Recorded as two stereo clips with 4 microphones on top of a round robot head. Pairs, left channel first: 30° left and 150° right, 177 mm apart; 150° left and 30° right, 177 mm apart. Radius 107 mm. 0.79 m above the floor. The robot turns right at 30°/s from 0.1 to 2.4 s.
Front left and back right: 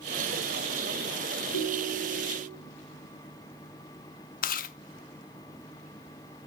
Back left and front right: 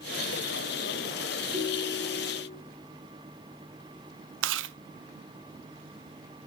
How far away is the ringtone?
About 3.5 m.